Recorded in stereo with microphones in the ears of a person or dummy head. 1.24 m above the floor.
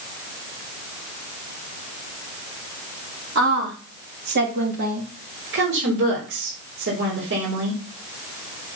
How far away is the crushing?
No crushing in this recording.